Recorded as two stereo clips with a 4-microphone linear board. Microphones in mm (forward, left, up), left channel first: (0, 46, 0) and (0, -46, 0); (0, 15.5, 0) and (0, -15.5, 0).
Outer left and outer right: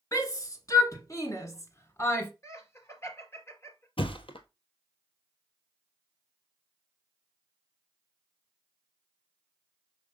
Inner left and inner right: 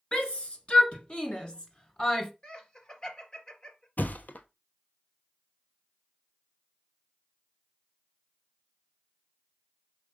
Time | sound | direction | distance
0.1 | a shout | 35° left (ahead or behind) | 1.9 m
2.4 | laughter | 30° left (ahead or behind) | 1.9 m
4.0 | a thud | 70° left (ahead or behind) | 0.9 m